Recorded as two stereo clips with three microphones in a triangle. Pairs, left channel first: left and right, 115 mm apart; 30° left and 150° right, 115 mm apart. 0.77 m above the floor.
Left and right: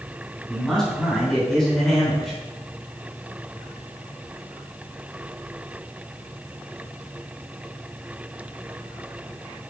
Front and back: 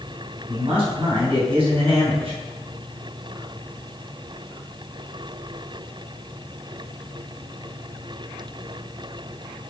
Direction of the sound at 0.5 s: 175° left.